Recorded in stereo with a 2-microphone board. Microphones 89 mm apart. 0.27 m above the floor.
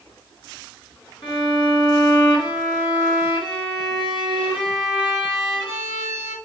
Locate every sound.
1.2 s a violin: 60° left (ahead or behind), 2 m